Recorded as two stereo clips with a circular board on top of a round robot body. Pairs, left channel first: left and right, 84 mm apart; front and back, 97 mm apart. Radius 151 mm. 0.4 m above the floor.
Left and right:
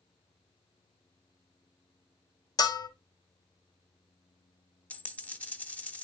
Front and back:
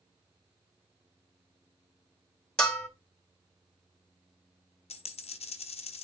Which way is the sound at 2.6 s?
80° left.